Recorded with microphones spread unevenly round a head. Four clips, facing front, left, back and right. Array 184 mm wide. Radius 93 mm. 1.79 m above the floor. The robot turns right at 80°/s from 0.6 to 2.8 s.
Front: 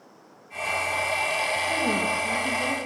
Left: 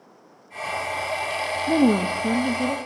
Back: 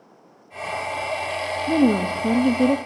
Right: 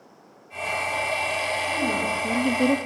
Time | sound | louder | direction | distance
1.7 | a woman speaking | left 11 dB, back 12 dB | 115° left | 0.9 m